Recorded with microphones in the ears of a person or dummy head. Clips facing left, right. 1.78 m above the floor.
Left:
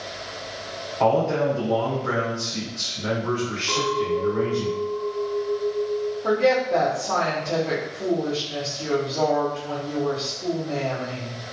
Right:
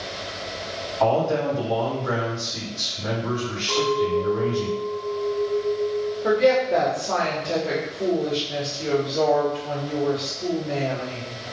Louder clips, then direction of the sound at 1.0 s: Left 1 dB; 35° left (ahead or behind).